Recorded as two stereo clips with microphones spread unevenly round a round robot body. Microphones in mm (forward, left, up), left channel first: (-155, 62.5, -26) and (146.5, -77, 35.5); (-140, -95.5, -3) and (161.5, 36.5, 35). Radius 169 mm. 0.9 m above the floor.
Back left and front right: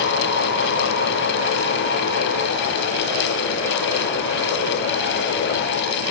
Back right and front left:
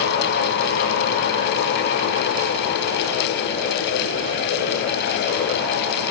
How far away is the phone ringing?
No phone ringing in this recording.